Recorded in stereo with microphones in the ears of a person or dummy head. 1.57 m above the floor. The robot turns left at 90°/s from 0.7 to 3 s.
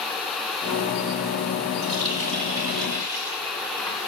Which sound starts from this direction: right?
A running tap, at 1.8 s.